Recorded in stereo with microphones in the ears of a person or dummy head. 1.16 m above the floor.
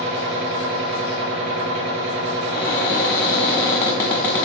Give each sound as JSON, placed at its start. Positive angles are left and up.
{"t": 0.0, "sound": "a machine running", "side_deg": -60, "distance_m": 0.9}
{"t": 2.5, "sound": "a cupboard door", "side_deg": 15, "distance_m": 1.0}